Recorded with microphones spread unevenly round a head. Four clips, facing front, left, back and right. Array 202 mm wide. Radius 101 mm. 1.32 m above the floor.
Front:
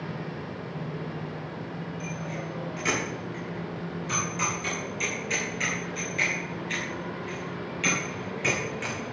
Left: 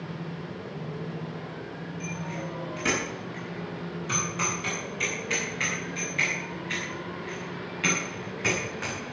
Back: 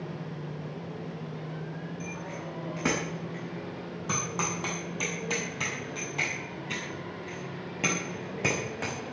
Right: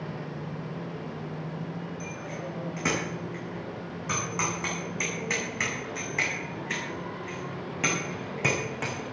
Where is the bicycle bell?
165° right, 10 m; by 9.0 s 135° right, 6.5 m.